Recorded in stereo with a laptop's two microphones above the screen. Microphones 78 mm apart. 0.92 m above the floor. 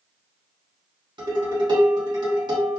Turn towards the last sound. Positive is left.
turn(degrees=-75)  # may be behind; listen again after turning